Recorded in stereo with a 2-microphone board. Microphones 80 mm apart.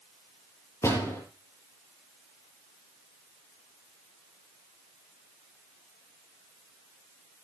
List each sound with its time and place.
0.8 s a door slam: 35° left (ahead or behind), 6.5 m